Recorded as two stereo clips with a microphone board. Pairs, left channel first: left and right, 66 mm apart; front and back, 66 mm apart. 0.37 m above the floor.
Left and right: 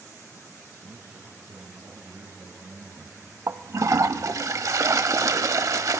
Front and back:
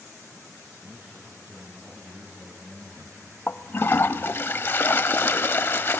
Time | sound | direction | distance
0.8 | a man speaking | 115° right | 4.5 m
3.5 | a toilet flushing | 55° right | 0.5 m